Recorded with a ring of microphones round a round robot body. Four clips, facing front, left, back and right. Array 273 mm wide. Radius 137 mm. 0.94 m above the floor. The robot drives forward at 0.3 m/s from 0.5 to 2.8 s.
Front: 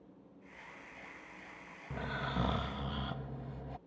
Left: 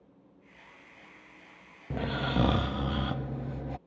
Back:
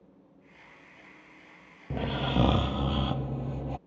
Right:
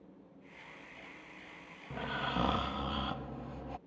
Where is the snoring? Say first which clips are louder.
Left 6 dB, back 9 dB; 140° left; by 3.8 s 150° left.